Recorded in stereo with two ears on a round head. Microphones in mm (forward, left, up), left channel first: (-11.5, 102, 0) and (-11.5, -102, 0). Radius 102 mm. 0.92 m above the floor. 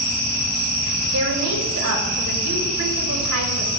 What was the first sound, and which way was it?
A woman speaking, 60° right (ahead or behind).